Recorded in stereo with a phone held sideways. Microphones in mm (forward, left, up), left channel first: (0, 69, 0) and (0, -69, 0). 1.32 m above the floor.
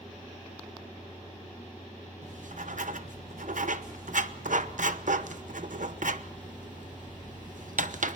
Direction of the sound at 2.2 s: 70° right (ahead or behind).